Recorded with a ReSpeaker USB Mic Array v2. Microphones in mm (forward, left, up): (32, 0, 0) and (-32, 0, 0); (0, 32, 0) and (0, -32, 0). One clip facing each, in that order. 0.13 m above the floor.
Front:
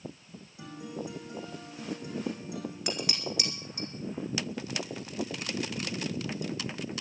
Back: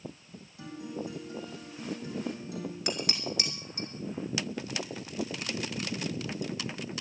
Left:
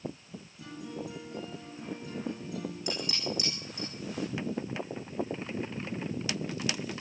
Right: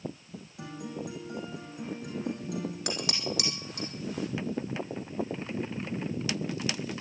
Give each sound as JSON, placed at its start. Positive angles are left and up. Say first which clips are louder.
{"t": 0.6, "sound": "a guitar", "louder": "back 1 dB, right 2 dB", "azimuth_deg": -70, "distance_m": 8.0}
{"t": 2.9, "sound": "dishes clattering", "louder": "even, right 1 dB", "azimuth_deg": -90, "distance_m": 4.5}